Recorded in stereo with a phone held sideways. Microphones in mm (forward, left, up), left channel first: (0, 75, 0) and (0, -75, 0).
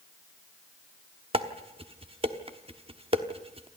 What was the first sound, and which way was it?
Dishes clattering, 35° right (ahead or behind).